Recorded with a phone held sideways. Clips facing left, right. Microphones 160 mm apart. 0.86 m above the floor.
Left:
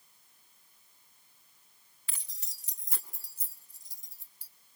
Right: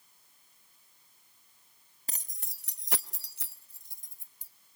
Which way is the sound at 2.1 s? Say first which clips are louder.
Right 6 dB; 40° right (ahead or behind).